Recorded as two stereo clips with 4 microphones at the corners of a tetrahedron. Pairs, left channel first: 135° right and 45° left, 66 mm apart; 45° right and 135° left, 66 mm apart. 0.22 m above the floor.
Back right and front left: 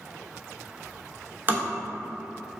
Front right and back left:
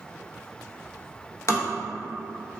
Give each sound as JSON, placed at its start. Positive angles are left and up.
{"t": 1.5, "sound": "tapping", "azimuth_deg": -10, "distance_m": 0.8}